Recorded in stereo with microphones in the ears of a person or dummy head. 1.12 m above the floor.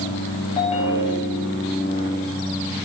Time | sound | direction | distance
0.6 | a ringtone | 40° left (ahead or behind) | 4.5 m